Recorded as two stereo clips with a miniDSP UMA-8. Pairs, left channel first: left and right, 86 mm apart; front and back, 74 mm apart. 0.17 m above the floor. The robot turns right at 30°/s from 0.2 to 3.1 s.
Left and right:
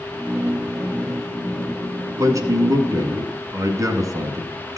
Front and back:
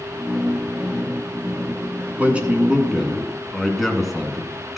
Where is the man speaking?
120° right, 1.9 m; by 4.8 s 95° right, 1.9 m.